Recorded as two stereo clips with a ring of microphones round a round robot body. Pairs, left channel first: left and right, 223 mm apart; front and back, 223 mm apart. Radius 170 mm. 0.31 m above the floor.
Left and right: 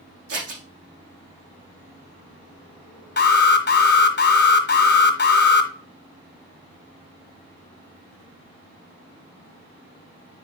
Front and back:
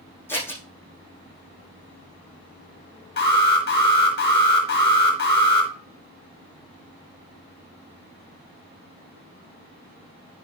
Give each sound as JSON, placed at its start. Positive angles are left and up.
{"t": 0.3, "sound": "scissors", "azimuth_deg": -80, "distance_m": 5.0}
{"t": 3.2, "sound": "an alarm", "azimuth_deg": 50, "distance_m": 1.7}